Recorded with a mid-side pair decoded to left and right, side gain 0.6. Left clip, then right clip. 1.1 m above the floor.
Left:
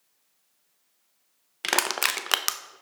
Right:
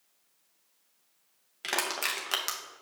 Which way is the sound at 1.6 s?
45° left.